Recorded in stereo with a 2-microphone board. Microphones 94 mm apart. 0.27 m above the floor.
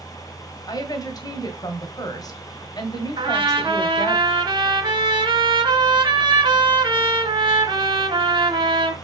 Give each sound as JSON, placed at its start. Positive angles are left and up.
{"t": 0.7, "sound": "a woman speaking", "side_deg": 45, "distance_m": 1.8}
{"t": 3.2, "sound": "a trumpet", "side_deg": -60, "distance_m": 1.8}